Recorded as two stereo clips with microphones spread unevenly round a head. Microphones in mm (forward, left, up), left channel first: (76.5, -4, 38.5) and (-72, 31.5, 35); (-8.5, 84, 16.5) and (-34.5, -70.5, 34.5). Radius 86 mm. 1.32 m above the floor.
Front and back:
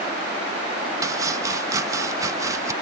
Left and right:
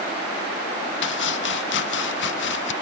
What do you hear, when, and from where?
1.0 s chopping: 95° left